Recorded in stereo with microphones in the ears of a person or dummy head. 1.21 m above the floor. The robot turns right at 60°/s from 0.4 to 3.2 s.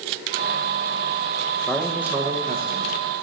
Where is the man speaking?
170° left, 1.4 m; by 3.0 s 105° right, 1.4 m.